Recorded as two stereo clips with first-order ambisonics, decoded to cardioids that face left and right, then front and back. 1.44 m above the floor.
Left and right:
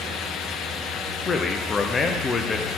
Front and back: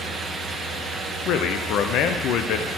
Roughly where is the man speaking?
Ahead left.